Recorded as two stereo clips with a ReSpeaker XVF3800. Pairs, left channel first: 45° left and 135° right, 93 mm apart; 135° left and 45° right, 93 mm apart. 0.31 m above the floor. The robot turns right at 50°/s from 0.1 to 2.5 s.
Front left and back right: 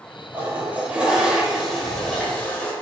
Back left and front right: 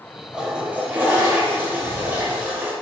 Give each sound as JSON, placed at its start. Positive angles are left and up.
{"t": 0.3, "sound": "a toilet flushing", "azimuth_deg": -110, "distance_m": 0.7}